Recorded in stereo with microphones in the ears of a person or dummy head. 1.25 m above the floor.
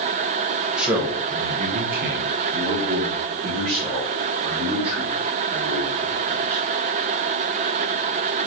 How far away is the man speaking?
About 0.7 m.